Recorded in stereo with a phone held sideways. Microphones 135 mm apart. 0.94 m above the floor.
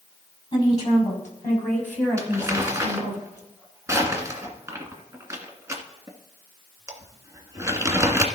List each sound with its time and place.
0.5 s a woman speaking: 35° left (ahead or behind), 6 m; by 3.2 s 5° right (ahead or behind), 6 m
2.2 s crumpling: 25° right (ahead or behind), 1.9 m